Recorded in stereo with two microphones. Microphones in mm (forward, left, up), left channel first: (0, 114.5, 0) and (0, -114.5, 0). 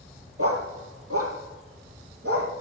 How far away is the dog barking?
About 2 m.